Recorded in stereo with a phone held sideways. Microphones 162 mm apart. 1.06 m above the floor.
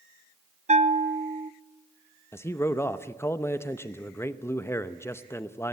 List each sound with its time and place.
0.7 s a bell: 45° right (ahead or behind), 0.7 m
2.3 s a man speaking: 15° left (ahead or behind), 0.8 m